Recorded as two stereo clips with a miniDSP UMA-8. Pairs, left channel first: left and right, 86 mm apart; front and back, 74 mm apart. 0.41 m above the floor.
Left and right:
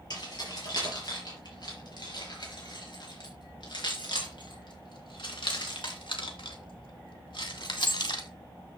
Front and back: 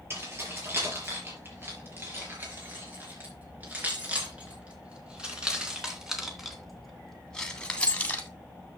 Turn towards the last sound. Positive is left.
turn(degrees=65)